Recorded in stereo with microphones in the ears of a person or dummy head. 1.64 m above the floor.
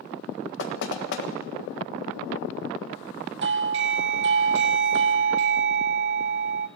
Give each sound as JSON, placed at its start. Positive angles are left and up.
{"t": 0.6, "sound": "knocking", "side_deg": 70, "distance_m": 1.7}
{"t": 3.4, "sound": "a doorbell", "side_deg": -60, "distance_m": 0.7}